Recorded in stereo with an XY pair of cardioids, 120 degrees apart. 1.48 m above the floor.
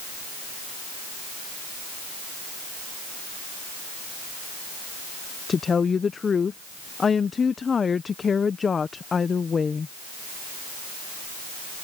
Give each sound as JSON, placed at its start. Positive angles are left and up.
{"t": 5.5, "sound": "a woman speaking", "azimuth_deg": 30}